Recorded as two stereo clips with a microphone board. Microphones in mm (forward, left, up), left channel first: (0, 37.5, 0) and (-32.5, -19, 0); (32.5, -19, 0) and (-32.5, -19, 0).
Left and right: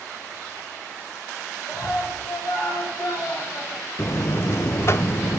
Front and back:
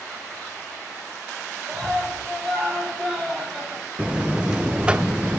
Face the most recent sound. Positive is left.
turn(degrees=110)